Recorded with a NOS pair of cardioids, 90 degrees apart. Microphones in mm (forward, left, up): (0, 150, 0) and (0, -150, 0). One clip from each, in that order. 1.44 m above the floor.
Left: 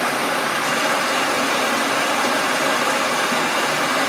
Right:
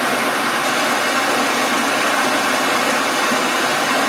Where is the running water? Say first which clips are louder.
Right 2 dB; 30° right, 1.7 m.